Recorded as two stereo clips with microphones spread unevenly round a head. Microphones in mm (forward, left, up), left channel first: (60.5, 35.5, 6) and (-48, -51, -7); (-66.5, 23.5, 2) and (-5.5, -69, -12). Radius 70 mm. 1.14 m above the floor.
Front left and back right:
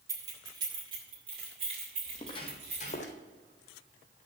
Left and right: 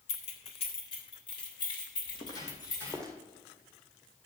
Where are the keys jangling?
150° left, 2 m; by 3.0 s 170° left, 6.5 m.